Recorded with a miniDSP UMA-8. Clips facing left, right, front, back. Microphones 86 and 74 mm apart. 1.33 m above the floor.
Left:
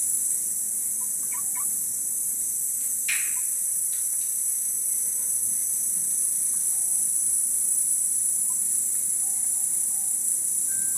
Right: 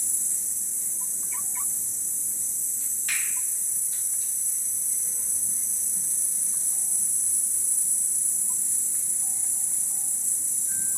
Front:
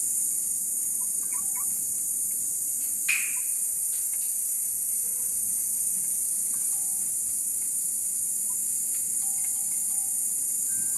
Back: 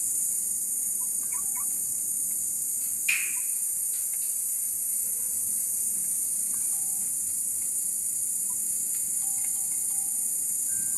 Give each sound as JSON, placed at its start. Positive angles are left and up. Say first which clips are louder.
{"t": 0.0, "sound": "an insect", "louder": "even, front 1 dB", "azimuth_deg": -20, "distance_m": 0.8}
{"t": 3.1, "sound": "a finger snap", "louder": "left 1 dB, even", "azimuth_deg": -40, "distance_m": 1.1}